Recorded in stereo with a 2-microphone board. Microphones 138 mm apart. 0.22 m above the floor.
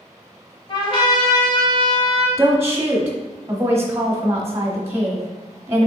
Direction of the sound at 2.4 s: 20° right (ahead or behind).